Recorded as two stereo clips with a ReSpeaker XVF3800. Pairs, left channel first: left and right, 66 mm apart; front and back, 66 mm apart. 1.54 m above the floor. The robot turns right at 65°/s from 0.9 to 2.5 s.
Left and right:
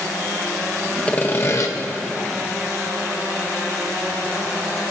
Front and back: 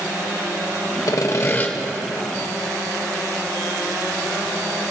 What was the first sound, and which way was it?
Sawing, 20° left.